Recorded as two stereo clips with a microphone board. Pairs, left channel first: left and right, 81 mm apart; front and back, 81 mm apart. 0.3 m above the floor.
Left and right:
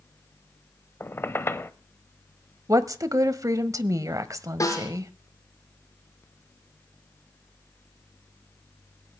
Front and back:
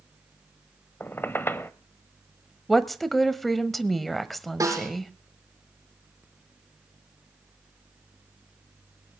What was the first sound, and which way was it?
A squeak, 45° left.